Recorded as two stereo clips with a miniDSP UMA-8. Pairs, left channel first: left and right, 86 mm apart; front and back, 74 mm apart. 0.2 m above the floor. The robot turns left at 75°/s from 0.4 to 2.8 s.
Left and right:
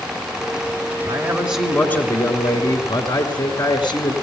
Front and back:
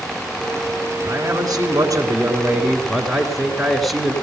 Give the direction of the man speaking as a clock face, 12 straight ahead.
5 o'clock.